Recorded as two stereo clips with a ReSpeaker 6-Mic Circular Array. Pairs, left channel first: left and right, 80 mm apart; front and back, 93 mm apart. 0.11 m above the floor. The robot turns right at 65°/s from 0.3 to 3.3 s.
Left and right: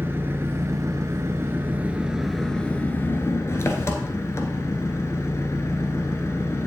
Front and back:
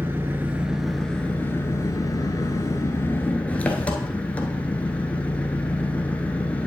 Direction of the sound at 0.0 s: 130° right.